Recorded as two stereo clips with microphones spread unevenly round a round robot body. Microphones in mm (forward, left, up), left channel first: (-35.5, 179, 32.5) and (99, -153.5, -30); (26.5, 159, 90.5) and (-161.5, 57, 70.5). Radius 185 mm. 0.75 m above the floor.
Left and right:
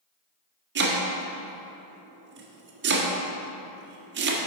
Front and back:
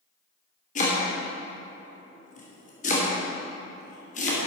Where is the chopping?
25° right, 1.3 m.